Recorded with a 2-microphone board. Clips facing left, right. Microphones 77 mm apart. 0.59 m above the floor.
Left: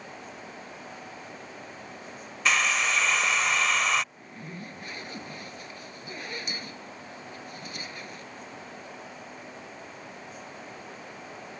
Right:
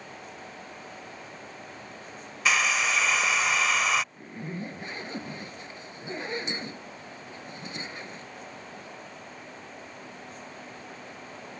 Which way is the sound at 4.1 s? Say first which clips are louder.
Right 5 dB; 25° right (ahead or behind).